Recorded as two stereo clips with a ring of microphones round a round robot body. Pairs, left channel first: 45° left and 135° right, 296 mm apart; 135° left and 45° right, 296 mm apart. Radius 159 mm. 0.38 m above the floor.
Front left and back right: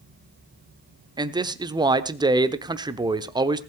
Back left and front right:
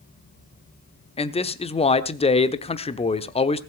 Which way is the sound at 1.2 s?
170° left.